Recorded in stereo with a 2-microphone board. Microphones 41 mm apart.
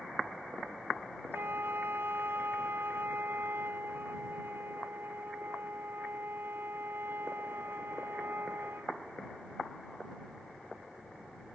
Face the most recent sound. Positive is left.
turn(degrees=-65)  # may be behind; listen again after turning